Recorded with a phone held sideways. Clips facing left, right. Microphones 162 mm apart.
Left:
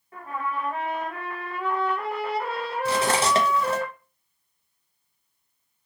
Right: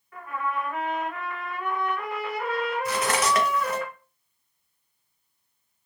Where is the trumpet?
30° left (ahead or behind), 0.7 m.